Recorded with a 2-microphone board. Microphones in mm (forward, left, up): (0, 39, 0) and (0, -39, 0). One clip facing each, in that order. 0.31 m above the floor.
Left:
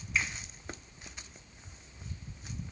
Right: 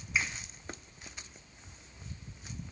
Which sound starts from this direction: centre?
A finger snap, at 0.1 s.